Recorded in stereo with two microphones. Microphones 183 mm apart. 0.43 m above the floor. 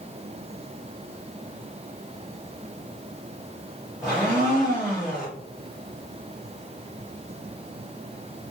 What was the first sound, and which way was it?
A blender, 5° right (ahead or behind).